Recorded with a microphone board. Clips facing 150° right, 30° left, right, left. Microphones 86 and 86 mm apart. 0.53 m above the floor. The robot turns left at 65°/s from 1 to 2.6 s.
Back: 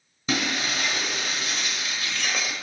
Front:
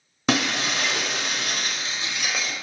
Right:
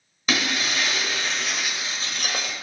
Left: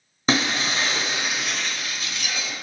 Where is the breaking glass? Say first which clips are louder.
Front 4 dB, left 3 dB; 30° left, 0.9 m; by 2.5 s 65° right, 0.9 m.